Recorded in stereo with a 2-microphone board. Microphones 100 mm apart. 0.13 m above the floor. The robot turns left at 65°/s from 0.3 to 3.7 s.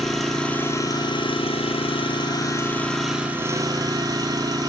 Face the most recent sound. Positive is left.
turn(degrees=-45)